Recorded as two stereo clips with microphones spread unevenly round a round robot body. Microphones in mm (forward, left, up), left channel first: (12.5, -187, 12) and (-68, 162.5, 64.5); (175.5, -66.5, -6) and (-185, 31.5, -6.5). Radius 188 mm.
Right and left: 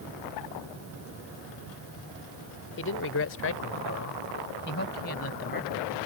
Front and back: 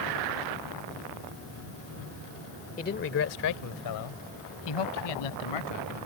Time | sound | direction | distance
2.8 | a man speaking | 75° right | ?